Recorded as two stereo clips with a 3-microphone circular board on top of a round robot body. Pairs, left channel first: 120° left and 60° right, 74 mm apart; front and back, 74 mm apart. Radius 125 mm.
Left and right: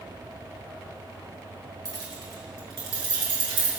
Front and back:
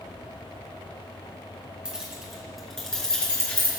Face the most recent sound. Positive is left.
turn(degrees=-75)